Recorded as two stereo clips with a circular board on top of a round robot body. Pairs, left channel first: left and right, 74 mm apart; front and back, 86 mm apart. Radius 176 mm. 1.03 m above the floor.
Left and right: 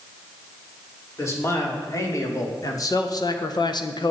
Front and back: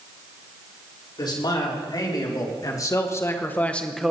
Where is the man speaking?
35° left, 4 m; by 4.1 s 95° left, 1.1 m.